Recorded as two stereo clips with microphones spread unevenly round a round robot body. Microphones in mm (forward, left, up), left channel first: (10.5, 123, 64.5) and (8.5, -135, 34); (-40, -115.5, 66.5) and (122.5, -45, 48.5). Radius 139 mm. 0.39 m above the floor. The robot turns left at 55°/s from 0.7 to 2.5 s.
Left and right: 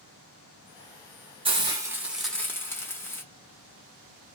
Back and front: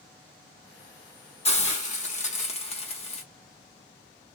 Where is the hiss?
125° right, 1.1 m; by 3.2 s 175° left, 1.1 m.